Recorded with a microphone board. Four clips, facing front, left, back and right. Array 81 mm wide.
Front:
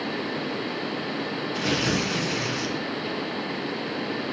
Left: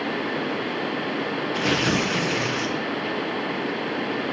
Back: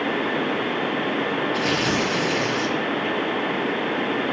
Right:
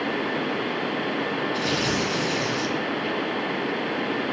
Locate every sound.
1.5 s tearing paper: 105° left, 0.8 m